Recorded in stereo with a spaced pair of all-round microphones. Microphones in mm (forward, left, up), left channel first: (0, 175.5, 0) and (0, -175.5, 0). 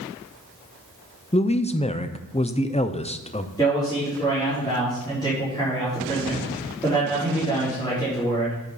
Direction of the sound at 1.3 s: 20° left (ahead or behind).